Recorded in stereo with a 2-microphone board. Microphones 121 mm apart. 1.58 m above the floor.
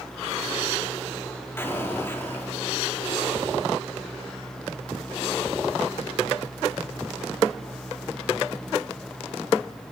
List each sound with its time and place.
1.6 s an explosion: 20° left (ahead or behind), 4.5 m